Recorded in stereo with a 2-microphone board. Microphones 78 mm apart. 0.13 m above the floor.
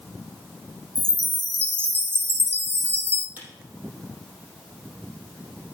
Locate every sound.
0.9 s a chime: 30° right (ahead or behind), 0.9 m
3.4 s a camera shutter: 25° right (ahead or behind), 4.5 m